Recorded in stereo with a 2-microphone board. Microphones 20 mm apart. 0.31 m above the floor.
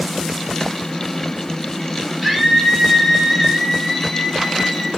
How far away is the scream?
About 9 m.